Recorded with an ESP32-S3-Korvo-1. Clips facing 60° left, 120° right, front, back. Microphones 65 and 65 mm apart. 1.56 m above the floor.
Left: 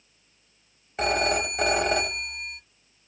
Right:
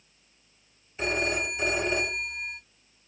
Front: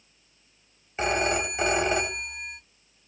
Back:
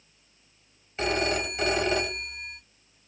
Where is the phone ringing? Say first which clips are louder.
Left 4 dB, front 1 dB; 65° left, 1.4 m.